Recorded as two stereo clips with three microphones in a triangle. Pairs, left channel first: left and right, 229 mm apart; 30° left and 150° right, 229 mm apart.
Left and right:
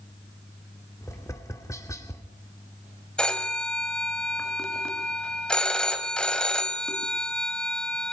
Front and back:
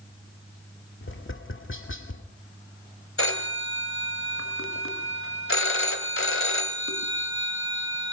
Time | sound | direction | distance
1.0 | tapping | 15° left | 2 m
3.2 | a phone ringing | 5° left | 1.9 m